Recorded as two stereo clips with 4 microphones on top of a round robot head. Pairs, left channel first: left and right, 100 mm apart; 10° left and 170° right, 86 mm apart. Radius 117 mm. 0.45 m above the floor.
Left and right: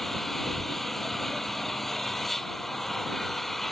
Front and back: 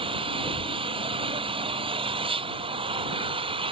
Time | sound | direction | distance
0.0 | an engine running | straight behind | ?